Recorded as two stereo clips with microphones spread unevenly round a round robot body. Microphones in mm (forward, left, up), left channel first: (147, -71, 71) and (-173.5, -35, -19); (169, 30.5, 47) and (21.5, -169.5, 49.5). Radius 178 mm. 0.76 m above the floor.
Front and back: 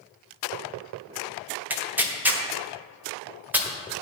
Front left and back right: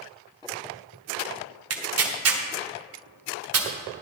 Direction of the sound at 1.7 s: 100° right.